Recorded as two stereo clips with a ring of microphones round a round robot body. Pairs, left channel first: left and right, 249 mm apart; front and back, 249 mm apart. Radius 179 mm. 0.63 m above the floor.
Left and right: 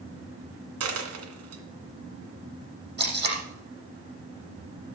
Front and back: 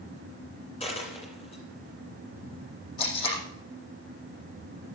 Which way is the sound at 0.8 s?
75° right.